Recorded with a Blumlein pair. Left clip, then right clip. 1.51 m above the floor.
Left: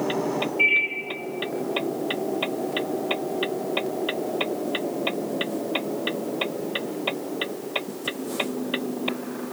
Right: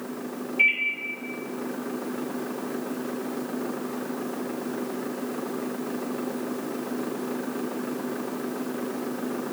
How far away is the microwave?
About 1.9 m.